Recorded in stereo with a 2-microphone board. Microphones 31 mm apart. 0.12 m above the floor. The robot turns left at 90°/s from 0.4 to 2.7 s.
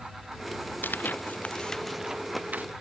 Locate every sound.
0.8 s tearing paper: 80° left; by 2.6 s 65° right (ahead or behind)